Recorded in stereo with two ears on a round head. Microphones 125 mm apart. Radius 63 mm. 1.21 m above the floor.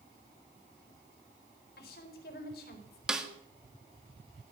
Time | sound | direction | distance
1.8 | a woman speaking | 75° left (ahead or behind) | 4 m
3.1 | a snare drum | 5° right (ahead or behind) | 1.5 m